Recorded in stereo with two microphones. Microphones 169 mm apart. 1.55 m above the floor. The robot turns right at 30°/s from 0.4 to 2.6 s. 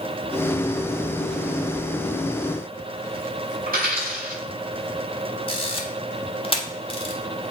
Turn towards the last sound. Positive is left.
turn(degrees=35)  # may be behind; listen again after turning